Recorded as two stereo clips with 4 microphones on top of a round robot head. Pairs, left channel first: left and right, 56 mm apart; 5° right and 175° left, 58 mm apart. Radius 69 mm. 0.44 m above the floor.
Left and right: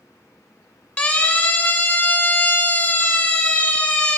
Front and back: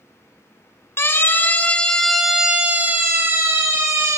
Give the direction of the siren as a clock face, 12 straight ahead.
11 o'clock.